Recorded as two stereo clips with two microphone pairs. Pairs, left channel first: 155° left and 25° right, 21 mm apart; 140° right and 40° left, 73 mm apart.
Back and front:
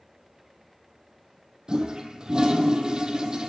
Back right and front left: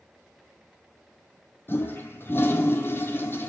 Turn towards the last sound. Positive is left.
turn(degrees=-80)